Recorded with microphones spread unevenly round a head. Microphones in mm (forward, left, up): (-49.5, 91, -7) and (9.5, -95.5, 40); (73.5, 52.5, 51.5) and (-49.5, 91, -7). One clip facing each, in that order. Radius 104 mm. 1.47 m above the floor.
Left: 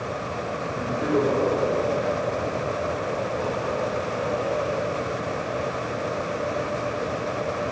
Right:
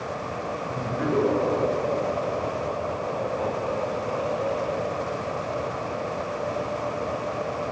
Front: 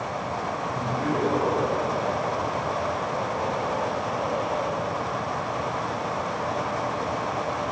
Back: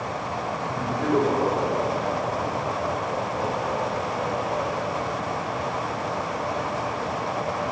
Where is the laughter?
130° right, 5 m; by 4.9 s 85° right, 2.5 m.